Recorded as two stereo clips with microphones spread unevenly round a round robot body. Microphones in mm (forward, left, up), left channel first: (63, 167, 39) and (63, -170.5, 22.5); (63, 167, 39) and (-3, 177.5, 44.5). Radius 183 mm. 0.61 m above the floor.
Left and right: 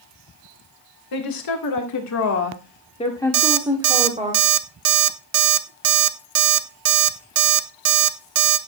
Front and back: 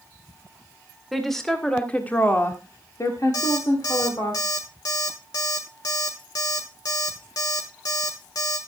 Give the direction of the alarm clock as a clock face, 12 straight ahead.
2 o'clock.